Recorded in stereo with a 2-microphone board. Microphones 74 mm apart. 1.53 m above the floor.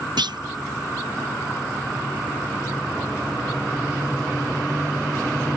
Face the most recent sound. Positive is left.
turn(degrees=-75)  # may be behind; listen again after turning